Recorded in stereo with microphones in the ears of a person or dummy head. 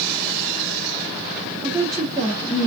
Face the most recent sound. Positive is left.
turn(degrees=20)  # may be behind; listen again after turning